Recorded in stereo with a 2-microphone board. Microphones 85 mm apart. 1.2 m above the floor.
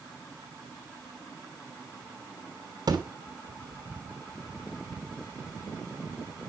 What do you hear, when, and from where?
2.9 s a thud: 55° right (ahead or behind), 2.5 m